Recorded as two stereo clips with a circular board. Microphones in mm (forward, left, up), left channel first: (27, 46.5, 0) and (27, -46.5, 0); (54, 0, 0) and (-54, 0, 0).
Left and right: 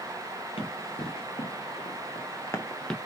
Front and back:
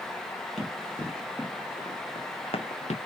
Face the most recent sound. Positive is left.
turn(degrees=5)